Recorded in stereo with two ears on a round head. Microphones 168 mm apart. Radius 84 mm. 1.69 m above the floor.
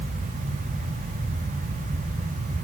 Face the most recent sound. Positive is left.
No sound to turn to.